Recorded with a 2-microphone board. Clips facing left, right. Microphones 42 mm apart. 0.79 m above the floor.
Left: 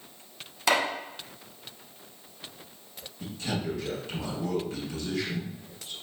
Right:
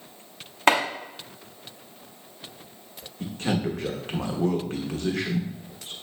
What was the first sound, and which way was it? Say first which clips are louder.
Chopping: right 5 dB; 40° right (ahead or behind).